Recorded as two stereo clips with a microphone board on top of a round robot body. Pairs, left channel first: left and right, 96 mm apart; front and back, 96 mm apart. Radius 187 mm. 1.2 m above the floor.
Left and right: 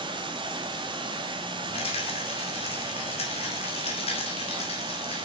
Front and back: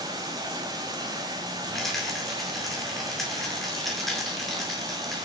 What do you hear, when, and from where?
0.0 s running water: 130° right, 1.5 m
1.7 s a rattle: 90° left, 2 m